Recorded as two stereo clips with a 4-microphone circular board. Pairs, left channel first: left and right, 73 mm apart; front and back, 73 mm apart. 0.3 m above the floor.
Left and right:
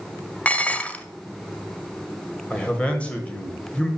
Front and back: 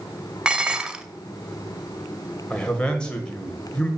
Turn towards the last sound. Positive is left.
turn(degrees=50)